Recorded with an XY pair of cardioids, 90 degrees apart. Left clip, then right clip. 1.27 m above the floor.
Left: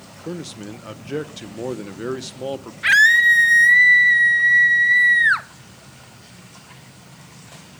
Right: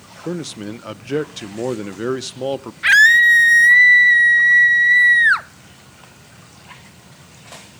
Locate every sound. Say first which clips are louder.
0.2 s a man speaking: right 5 dB; 40° right, 0.7 m
2.8 s a scream: right 3 dB; 20° right, 1.1 m